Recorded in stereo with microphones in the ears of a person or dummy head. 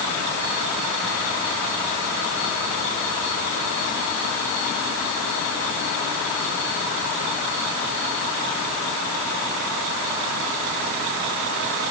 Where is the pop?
I don't hear a pop.